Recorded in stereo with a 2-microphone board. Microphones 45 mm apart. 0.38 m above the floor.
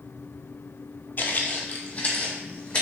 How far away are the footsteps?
About 0.5 m.